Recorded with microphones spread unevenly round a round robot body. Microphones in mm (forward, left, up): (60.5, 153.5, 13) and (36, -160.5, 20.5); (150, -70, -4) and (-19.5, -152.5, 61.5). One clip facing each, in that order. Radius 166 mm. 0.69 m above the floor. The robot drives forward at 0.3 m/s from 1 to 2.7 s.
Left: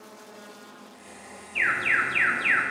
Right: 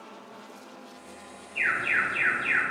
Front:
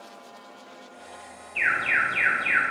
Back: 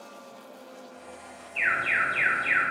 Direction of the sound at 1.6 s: 55° left.